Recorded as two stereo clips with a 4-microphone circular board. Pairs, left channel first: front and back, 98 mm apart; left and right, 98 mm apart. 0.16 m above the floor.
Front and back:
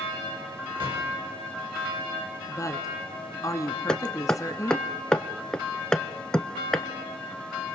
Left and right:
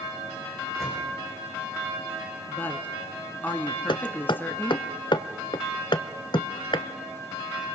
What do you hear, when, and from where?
0.8 s a microwave: 150° right, 7 m
2.5 s a woman speaking: 30° left, 1.4 m
3.9 s hammering: 80° left, 0.8 m